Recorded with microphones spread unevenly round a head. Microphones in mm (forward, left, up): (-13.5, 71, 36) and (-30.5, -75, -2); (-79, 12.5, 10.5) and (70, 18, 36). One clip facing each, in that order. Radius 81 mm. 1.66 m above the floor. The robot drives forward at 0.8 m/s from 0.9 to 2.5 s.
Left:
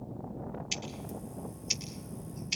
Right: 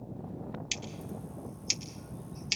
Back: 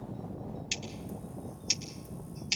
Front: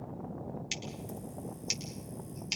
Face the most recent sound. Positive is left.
turn(degrees=-90)